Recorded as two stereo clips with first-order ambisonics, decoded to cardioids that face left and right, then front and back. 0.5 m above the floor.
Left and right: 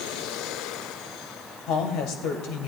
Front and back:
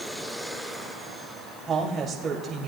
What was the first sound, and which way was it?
A woman speaking, 110° left.